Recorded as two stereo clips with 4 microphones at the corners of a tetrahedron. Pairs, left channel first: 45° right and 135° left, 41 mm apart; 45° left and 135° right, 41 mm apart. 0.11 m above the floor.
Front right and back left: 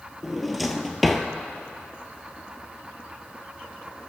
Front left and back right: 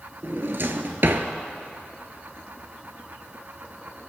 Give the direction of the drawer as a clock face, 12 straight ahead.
4 o'clock.